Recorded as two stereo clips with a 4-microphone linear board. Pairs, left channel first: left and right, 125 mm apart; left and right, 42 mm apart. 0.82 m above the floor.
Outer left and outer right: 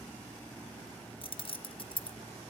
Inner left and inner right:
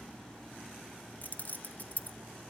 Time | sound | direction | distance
1.2 | keys jangling | 45° left (ahead or behind) | 0.5 m